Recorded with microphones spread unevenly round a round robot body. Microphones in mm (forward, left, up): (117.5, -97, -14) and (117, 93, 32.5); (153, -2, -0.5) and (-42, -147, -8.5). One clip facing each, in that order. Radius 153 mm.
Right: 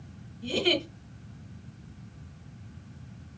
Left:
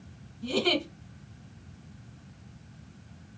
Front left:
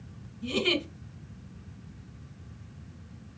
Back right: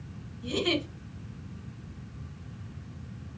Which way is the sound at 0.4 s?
20° right.